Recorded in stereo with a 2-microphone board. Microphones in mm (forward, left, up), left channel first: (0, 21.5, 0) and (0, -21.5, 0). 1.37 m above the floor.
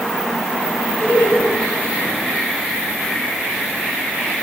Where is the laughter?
60° left (ahead or behind), 4 m.